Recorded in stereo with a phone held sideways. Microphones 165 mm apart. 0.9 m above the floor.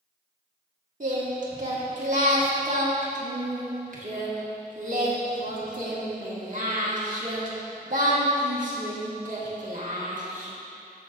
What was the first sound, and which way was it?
Singing, 50° right (ahead or behind).